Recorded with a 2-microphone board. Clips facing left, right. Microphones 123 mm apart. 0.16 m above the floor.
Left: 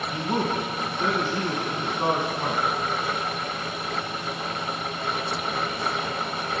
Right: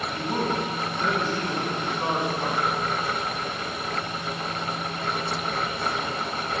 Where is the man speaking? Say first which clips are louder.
Left 1 dB; 30° left (ahead or behind), 1.6 m.